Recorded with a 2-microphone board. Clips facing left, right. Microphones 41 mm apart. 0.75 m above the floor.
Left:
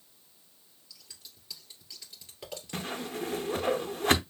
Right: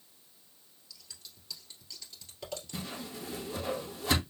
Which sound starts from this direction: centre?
Scissors, at 0.9 s.